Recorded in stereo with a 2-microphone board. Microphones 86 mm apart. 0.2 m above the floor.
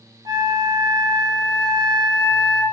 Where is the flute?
50° right (ahead or behind), 0.7 m.